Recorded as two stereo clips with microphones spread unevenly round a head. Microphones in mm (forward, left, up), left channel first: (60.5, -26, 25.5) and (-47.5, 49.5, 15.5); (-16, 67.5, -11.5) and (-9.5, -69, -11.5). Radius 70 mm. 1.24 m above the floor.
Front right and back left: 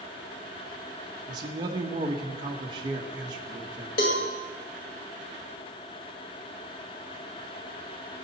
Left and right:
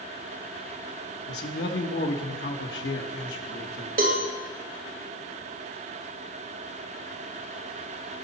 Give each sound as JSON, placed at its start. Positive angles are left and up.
{"t": 1.3, "sound": "a man speaking", "azimuth_deg": 85, "distance_m": 1.2}
{"t": 4.0, "sound": "a cowbell", "azimuth_deg": -55, "distance_m": 2.0}